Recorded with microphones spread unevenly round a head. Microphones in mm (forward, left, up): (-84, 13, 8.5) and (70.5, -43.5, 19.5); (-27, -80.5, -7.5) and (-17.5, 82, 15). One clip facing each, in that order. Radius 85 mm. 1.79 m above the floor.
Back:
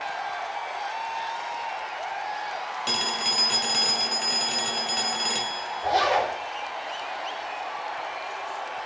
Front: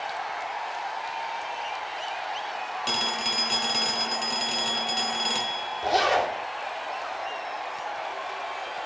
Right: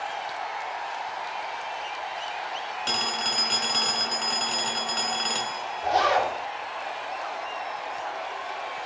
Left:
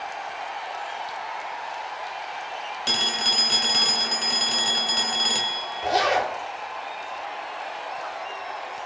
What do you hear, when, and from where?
2.9 s a phone ringing: 65° left, 0.7 m
5.8 s a zipper: 40° left, 3 m